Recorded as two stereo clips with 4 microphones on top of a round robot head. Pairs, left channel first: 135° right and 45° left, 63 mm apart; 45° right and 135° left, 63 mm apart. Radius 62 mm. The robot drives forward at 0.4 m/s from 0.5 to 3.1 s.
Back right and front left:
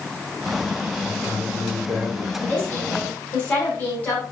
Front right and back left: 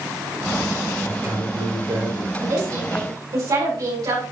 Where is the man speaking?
170° left, 4 m.